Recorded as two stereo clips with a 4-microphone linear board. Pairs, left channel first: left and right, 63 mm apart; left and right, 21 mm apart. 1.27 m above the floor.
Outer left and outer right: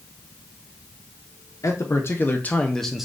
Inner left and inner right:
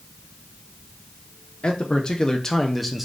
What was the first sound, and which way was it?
A man speaking, 50° left (ahead or behind).